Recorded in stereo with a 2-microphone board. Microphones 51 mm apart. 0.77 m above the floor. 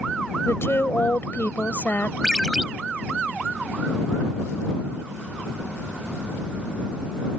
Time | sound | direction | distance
0.5 | a woman speaking | 60° left (ahead or behind) | ?
2.2 | a ringtone | 5° right (ahead or behind) | ?